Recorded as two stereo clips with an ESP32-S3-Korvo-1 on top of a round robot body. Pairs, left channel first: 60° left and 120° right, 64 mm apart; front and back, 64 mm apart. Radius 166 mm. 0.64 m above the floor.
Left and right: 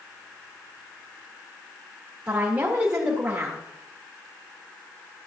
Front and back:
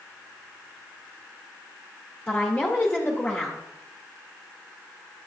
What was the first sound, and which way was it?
A woman speaking, 60° right.